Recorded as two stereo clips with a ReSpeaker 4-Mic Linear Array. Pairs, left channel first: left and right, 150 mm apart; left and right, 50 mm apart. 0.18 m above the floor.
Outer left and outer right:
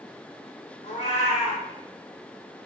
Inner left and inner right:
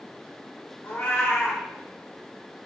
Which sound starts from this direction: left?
A cat meowing, at 0.8 s.